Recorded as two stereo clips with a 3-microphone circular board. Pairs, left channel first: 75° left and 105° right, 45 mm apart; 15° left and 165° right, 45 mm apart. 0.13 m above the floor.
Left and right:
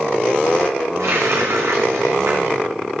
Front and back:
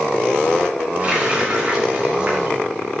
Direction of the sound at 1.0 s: 100° right.